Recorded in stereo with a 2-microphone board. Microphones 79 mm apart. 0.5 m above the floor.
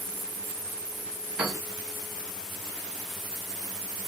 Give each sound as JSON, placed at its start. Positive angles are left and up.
{"t": 1.4, "sound": "a piano", "side_deg": -5, "distance_m": 1.3}